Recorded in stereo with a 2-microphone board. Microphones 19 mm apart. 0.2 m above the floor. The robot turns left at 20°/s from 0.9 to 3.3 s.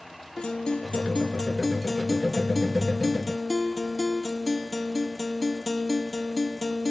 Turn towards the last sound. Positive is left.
turn(degrees=5)